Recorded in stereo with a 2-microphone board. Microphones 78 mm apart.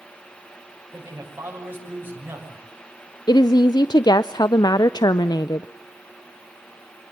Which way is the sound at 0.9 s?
30° right (ahead or behind).